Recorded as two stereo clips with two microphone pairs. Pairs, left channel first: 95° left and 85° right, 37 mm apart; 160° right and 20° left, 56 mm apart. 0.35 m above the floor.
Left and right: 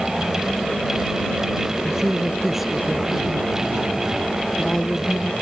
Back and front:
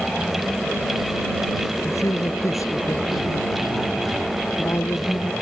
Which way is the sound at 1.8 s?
160° right.